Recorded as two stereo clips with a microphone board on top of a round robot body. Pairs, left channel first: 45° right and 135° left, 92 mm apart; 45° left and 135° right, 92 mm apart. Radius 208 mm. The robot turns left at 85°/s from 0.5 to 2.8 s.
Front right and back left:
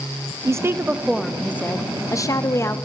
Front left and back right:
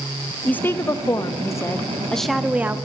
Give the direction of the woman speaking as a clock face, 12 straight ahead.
8 o'clock.